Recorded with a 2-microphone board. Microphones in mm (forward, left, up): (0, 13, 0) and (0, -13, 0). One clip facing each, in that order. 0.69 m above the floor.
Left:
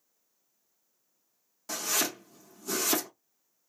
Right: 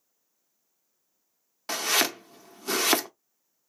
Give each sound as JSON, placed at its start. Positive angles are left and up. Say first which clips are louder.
{"t": 1.7, "sound": "chopping", "louder": "right 6 dB", "side_deg": -50, "distance_m": 0.5}